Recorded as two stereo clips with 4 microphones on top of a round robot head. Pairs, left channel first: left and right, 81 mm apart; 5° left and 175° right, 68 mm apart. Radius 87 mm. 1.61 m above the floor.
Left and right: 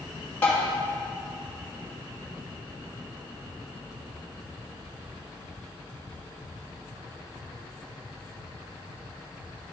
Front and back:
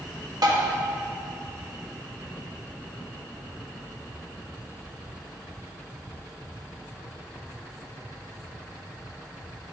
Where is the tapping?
165° left, 1.8 m.